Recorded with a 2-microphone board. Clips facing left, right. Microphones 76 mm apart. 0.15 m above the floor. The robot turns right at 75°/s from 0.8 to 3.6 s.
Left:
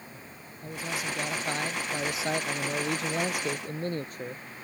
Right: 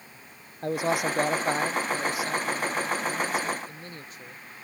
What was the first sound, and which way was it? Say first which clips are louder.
A man speaking: right 9 dB; 80° right.